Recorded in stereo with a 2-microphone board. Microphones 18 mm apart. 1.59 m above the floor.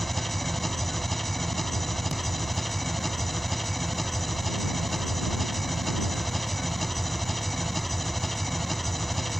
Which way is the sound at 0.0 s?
10° left (ahead or behind).